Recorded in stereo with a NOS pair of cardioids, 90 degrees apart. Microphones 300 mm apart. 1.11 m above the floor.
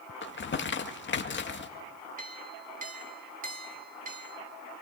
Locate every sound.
0.2 s crumpling: 40° left, 1.9 m
2.2 s a clink: 25° right, 2.5 m